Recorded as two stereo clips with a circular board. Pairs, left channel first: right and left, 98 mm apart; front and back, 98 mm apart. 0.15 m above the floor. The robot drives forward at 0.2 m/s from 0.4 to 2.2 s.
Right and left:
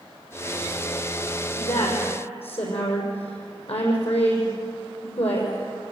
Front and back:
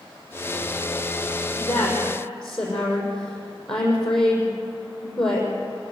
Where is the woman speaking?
85° right, 7 m.